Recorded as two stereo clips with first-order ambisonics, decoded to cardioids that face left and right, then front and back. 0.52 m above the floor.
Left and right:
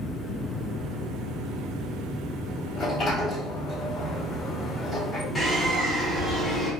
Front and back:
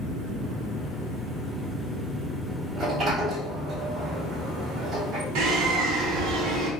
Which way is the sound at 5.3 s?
165° left.